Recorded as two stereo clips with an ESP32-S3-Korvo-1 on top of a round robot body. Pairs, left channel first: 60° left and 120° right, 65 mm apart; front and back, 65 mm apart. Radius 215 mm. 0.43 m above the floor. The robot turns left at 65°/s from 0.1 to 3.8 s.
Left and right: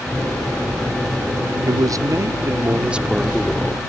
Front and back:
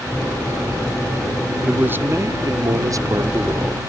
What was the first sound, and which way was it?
A man speaking, 110° right.